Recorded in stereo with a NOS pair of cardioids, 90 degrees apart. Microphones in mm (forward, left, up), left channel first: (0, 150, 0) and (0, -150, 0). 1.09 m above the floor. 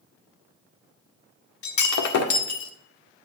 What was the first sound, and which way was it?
Breaking glass, 70° left.